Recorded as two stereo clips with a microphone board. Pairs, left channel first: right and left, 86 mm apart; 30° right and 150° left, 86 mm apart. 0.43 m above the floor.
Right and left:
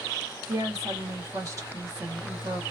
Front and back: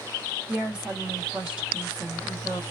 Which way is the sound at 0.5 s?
75° left.